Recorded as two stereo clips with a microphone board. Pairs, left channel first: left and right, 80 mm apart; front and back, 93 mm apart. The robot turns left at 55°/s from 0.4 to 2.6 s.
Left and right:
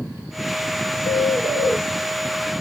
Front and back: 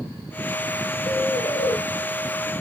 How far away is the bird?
About 3 m.